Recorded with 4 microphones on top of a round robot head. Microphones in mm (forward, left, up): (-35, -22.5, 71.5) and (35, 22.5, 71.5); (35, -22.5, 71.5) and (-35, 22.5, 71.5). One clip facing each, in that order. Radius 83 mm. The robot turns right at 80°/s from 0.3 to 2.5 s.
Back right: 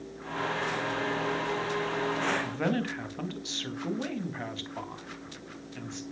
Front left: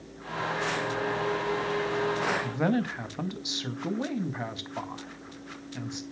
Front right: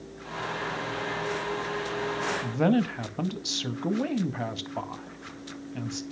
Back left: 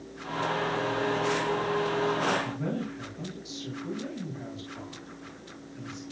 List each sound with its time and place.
2.4 s a man speaking: 50° right, 2 m; by 6.0 s 40° right, 2 m